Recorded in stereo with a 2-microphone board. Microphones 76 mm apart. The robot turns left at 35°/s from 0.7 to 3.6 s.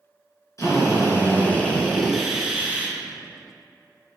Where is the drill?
50° left, 2.0 m; by 2.9 s 30° right, 2.0 m.